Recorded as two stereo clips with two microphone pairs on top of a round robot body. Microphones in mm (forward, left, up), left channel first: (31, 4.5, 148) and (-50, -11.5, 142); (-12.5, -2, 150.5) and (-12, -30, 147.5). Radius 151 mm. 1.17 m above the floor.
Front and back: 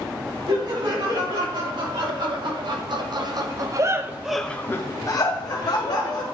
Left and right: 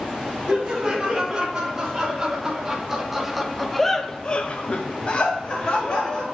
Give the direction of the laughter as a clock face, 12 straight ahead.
5 o'clock.